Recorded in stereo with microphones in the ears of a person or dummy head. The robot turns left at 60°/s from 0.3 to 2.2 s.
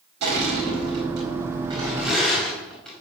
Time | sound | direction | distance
0.2 | crushing | 65° right (ahead or behind) | 5.5 m